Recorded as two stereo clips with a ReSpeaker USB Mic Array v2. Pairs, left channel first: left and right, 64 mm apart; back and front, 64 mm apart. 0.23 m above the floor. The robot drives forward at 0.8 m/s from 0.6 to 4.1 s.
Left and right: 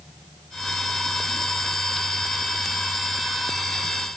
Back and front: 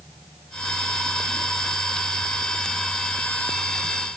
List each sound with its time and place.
Only background noise.